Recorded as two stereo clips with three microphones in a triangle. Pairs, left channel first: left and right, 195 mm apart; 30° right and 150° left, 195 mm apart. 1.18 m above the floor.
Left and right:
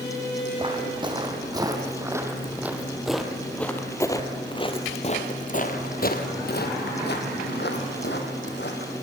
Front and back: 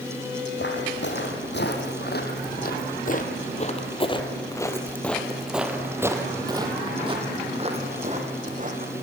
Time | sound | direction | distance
0.6 | footsteps | 25° right | 3 m